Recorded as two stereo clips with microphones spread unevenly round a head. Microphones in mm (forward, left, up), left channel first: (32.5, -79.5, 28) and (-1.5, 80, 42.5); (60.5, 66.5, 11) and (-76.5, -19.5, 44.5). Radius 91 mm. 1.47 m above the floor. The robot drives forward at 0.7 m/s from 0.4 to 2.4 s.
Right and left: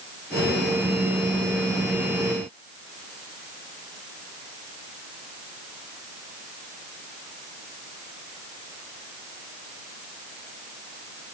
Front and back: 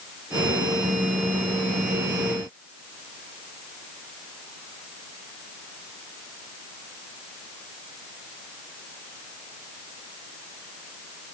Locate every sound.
Only background noise.